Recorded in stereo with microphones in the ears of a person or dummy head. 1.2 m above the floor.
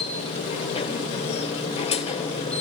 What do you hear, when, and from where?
0.0 s a machine running: 30° left (ahead or behind), 1.8 m